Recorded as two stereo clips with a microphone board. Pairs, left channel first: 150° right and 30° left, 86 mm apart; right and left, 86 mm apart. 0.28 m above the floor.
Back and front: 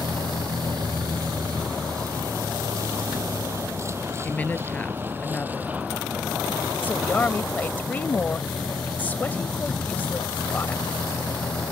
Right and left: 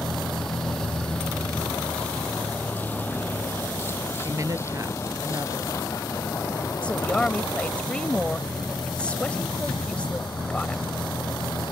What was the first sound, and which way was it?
A vehicle, straight ahead.